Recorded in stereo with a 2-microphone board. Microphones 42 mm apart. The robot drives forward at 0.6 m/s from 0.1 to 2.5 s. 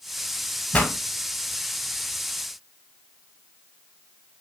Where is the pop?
30° left (ahead or behind), 0.9 m; by 0.9 s 25° left (ahead or behind), 1.0 m.